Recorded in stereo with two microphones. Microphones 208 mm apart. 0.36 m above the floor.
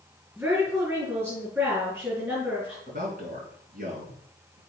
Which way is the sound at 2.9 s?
45° right (ahead or behind).